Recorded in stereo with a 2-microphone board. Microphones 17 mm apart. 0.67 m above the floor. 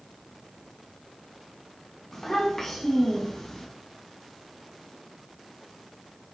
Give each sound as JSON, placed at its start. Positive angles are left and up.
{"t": 2.1, "sound": "a child speaking", "side_deg": 30, "distance_m": 5.0}